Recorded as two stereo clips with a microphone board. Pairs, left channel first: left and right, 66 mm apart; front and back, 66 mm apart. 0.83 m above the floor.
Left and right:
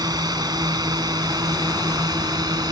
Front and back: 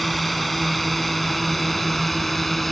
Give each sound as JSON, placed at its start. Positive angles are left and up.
{"t": 0.0, "sound": "a drone", "azimuth_deg": -90}